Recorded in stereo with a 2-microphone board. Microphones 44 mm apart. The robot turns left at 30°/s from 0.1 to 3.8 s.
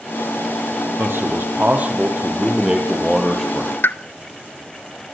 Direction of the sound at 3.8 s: 55° left (ahead or behind).